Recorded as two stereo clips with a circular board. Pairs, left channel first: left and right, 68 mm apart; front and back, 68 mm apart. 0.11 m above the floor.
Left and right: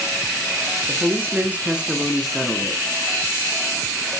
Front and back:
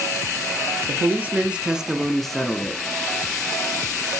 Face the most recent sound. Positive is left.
turn(degrees=50)